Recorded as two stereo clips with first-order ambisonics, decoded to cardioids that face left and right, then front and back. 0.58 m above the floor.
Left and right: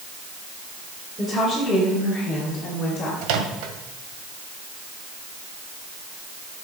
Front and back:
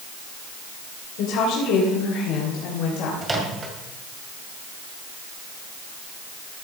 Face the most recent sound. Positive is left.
turn(degrees=-105)